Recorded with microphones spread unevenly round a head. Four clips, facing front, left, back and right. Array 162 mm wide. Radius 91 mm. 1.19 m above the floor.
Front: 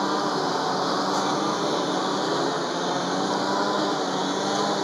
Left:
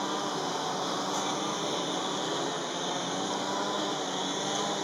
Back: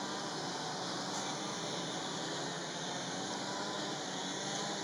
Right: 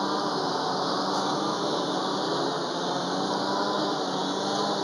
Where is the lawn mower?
20° right.